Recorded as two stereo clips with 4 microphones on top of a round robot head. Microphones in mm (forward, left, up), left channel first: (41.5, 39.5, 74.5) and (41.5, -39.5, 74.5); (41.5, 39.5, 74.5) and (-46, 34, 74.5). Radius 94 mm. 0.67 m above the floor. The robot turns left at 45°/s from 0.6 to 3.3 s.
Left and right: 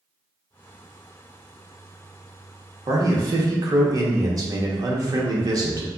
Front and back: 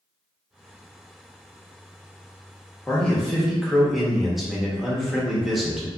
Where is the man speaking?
70° right, 0.9 m; by 5.9 s 90° right, 0.9 m.